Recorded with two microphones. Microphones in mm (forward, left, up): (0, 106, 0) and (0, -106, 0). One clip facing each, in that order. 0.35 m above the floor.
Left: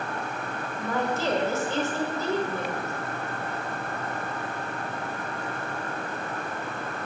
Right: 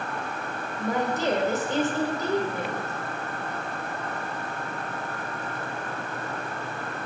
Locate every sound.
0.8 s a woman speaking: 15° right (ahead or behind), 1.6 m